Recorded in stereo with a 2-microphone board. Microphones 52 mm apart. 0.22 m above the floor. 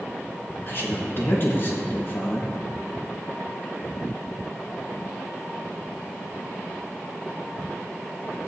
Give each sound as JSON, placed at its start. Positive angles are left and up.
{"t": 0.7, "sound": "a man speaking", "side_deg": 45, "distance_m": 3.0}